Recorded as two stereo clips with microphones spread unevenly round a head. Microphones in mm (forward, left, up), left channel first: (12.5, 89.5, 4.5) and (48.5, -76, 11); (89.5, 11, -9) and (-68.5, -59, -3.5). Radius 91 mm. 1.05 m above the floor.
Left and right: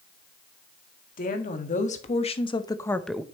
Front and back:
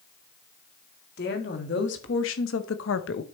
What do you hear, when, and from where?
1.2 s a woman speaking: 65° left, 2.0 m; by 3.2 s 5° left, 0.8 m